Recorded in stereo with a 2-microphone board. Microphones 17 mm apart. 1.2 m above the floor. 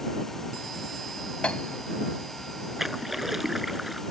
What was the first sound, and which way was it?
A piano, 80° left.